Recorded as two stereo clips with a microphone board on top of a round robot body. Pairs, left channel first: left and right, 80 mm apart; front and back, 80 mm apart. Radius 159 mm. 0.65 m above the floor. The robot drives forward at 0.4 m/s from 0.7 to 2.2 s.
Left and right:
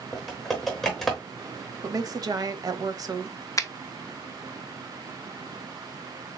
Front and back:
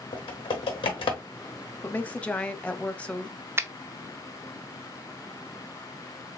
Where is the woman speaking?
60° right, 0.9 m; by 3.5 s 70° right, 0.9 m.